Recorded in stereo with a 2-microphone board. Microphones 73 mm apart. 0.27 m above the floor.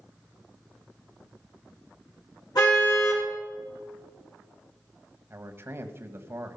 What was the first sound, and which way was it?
A car horn, 65° left (ahead or behind).